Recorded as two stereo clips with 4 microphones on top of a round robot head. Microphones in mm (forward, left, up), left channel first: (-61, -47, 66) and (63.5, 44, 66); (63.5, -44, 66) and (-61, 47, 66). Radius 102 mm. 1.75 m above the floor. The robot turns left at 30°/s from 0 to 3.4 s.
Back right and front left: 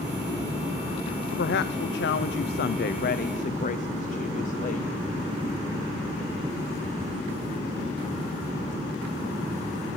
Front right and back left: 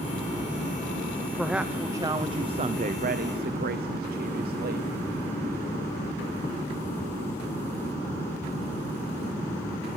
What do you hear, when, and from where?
1.4 s a woman speaking: 125° right, 1.0 m; by 4.9 s 170° left, 1.0 m